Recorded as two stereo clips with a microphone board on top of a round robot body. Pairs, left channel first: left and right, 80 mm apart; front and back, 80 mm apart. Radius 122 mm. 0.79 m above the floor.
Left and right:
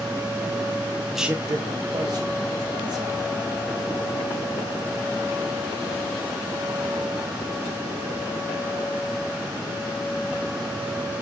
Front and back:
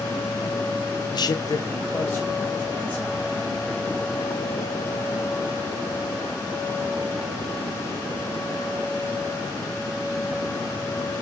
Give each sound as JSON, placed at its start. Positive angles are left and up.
{"t": 1.1, "sound": "a man speaking", "azimuth_deg": 0, "distance_m": 0.6}